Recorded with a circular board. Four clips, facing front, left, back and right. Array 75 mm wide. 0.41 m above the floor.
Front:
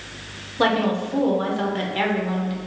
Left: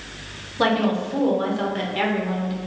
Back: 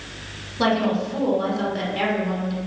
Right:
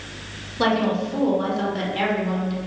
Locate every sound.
0.6 s a woman speaking: 30° left, 0.8 m